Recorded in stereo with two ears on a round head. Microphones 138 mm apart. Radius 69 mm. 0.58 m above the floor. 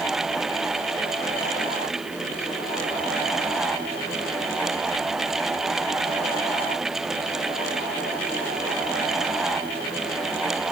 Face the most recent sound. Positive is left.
No sound to turn to.